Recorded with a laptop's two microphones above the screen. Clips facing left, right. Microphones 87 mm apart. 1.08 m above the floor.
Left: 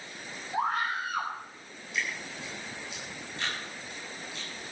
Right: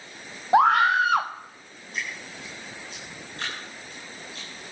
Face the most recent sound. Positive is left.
turn(degrees=-40)  # may be behind; listen again after turning